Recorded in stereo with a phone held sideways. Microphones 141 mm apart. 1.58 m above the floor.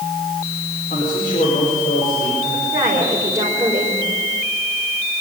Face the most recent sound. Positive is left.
turn(degrees=-20)  # may be behind; listen again after turning